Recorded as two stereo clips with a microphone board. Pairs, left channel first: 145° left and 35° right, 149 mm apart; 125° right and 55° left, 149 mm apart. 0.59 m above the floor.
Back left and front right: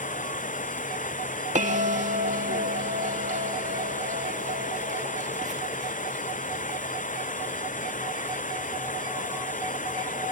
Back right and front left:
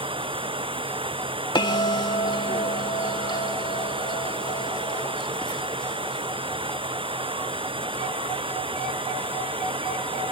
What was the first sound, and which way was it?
Running water, 110° left.